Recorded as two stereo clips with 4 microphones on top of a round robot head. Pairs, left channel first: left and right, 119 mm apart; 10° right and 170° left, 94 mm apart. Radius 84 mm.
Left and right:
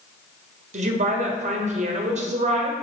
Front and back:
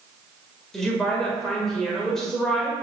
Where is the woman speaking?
95° right, 1.9 m.